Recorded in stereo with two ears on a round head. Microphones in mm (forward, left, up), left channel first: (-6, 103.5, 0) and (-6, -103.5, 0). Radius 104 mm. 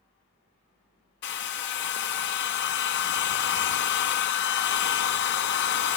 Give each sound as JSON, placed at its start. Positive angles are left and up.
{"t": 1.2, "sound": "a hair dryer", "side_deg": 50, "distance_m": 0.8}